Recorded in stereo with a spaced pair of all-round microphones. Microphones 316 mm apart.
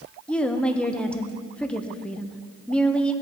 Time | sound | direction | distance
0.3 | a woman speaking | 5° left (ahead or behind) | 0.7 m